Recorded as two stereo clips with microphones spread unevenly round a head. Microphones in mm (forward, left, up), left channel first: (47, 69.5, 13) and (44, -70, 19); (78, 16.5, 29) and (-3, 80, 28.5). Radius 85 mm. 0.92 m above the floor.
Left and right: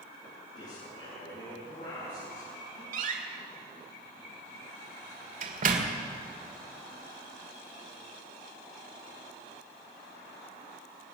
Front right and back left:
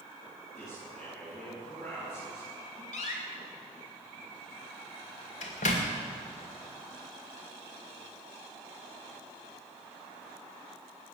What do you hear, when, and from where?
0.6 s a man speaking: 50° left, 8 m
2.9 s a door slam: 65° right, 1.9 m